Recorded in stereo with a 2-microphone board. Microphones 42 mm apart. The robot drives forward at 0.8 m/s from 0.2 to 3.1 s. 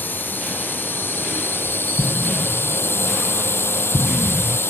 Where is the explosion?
30° left (ahead or behind); by 4.6 s 25° left (ahead or behind).